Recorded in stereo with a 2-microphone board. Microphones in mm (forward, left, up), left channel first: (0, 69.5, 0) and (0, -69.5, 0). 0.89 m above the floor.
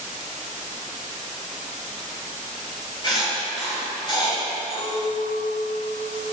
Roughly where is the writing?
Left.